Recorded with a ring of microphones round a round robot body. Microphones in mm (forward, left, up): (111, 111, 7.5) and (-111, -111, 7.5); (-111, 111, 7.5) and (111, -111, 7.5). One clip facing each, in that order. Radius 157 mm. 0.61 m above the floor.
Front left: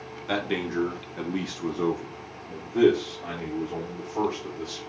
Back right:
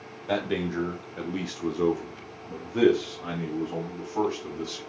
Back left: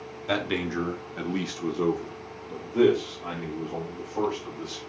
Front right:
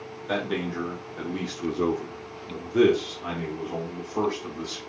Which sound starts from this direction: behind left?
A man speaking, at 0.3 s.